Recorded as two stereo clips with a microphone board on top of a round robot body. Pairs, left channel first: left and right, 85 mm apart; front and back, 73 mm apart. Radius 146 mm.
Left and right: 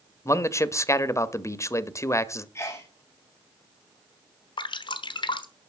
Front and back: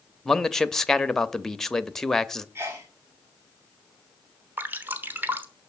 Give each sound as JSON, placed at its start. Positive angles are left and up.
{"t": 0.2, "sound": "a man speaking", "azimuth_deg": 75, "distance_m": 0.9}
{"t": 2.5, "sound": "a sneeze", "azimuth_deg": 135, "distance_m": 1.6}
{"t": 4.6, "sound": "dripping", "azimuth_deg": 115, "distance_m": 1.2}